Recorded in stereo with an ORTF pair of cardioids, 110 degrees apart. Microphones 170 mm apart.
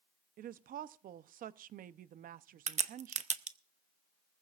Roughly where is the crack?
Ahead right.